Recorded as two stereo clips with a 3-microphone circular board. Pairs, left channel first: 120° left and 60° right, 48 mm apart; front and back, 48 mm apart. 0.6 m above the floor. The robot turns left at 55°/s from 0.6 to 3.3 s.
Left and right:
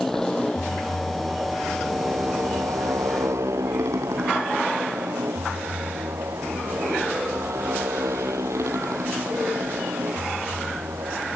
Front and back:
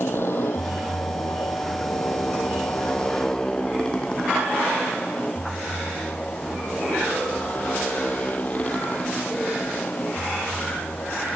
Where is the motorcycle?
35° left; by 11.3 s 55° right.